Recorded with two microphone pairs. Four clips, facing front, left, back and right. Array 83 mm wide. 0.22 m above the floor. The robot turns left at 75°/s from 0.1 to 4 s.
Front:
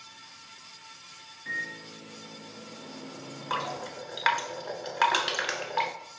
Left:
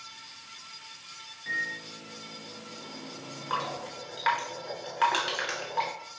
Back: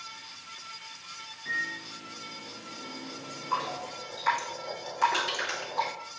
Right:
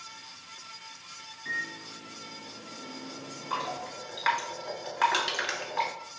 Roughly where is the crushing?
Ahead.